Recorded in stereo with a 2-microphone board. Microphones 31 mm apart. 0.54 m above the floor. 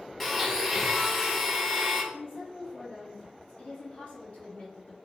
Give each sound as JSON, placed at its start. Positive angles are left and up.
{"t": 0.2, "sound": "a blender", "side_deg": 10, "distance_m": 0.7}
{"t": 2.1, "sound": "a woman speaking", "side_deg": 50, "distance_m": 1.0}